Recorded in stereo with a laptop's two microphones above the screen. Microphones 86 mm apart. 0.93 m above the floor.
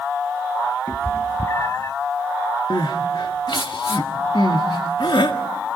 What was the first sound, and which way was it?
A cat meowing, 35° left (ahead or behind).